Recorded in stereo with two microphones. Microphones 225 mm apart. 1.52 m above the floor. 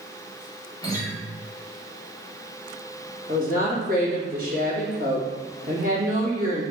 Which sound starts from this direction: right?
A woman speaking, at 3.3 s.